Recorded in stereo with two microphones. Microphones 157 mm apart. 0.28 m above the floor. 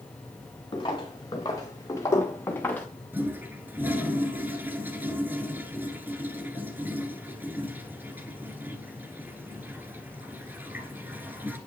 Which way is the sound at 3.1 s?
15° right (ahead or behind).